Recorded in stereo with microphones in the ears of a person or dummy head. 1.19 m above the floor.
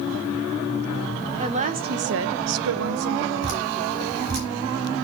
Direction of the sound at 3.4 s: 65° right (ahead or behind).